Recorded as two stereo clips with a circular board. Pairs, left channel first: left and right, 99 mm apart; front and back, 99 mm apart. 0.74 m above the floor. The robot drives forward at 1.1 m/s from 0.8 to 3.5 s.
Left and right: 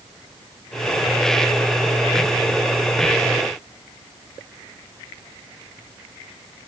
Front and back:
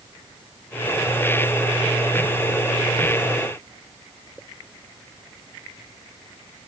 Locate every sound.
Only background noise.